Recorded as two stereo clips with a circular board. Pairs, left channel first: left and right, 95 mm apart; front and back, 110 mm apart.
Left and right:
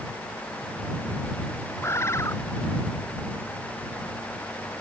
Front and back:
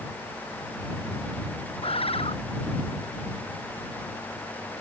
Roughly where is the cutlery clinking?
No cutlery clinking in this recording.